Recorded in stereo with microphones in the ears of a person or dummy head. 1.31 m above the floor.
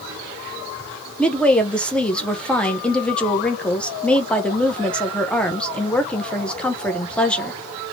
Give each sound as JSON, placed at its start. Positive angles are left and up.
{"t": 1.2, "sound": "a woman speaking", "side_deg": 5, "distance_m": 1.0}